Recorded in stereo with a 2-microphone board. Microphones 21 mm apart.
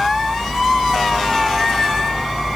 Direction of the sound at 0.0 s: 60° right (ahead or behind).